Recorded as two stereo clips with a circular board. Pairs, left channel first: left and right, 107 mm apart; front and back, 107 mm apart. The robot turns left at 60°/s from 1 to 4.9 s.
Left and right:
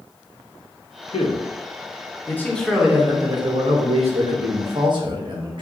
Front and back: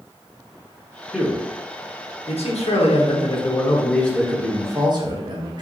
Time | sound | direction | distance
1.1 | a man speaking | 95° left | 1.2 m